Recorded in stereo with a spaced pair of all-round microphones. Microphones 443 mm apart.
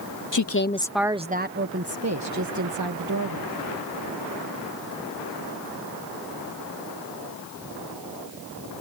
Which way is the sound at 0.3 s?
45° left (ahead or behind).